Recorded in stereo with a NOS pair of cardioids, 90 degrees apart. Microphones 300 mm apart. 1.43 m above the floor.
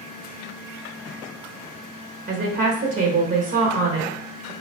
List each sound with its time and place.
2.3 s a woman speaking: 45° right, 1.2 m